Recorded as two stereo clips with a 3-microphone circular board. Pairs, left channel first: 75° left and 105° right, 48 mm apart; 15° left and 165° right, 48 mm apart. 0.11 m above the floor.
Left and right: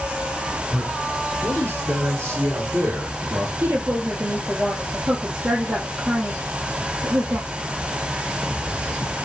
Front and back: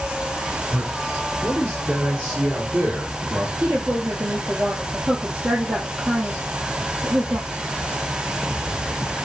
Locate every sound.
0.7 s a man speaking: 135° right, 1.9 m; by 3.5 s 110° right, 4 m
3.6 s a woman speaking: 100° right, 3 m